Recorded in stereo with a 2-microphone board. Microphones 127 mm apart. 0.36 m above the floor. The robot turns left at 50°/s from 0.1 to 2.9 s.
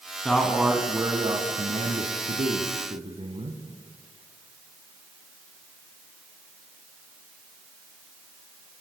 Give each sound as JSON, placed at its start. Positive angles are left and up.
{"t": 0.2, "sound": "a man speaking", "azimuth_deg": 10, "distance_m": 2.5}